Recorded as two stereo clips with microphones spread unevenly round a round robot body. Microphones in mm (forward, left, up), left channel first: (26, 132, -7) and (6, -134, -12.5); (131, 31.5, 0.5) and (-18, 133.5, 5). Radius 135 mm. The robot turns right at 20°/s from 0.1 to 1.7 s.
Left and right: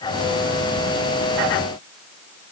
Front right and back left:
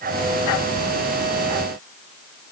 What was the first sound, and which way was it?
Only background noise.